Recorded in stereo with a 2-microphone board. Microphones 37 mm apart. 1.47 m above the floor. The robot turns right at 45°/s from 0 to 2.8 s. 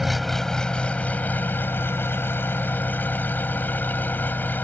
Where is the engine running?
5° right; by 4.6 s 120° left.